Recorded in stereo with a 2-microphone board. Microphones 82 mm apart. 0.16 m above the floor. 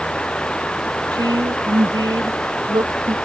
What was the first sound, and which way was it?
Running water, 10° left (ahead or behind).